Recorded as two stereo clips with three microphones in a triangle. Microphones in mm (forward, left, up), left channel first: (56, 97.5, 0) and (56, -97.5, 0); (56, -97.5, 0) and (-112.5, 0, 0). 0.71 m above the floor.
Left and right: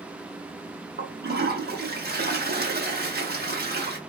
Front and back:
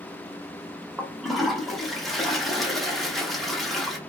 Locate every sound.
1.0 s a toilet flushing: 120° right, 0.8 m